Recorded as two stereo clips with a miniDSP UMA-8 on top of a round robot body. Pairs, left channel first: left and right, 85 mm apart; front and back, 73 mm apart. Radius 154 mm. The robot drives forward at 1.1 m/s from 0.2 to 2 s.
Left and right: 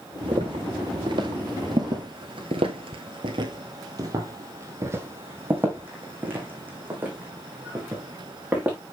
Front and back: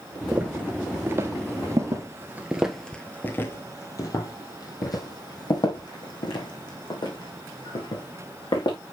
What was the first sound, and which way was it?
Footsteps, 110° right.